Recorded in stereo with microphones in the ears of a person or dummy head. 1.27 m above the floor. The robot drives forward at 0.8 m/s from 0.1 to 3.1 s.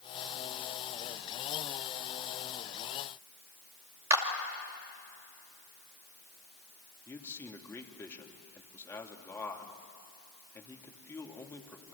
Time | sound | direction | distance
4.1 | a clap | 20° right (ahead or behind) | 2 m
7.1 | a man speaking | 10° left (ahead or behind) | 2.5 m